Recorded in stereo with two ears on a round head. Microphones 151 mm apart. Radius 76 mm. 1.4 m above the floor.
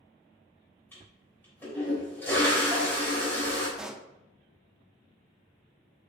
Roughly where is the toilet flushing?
Centre.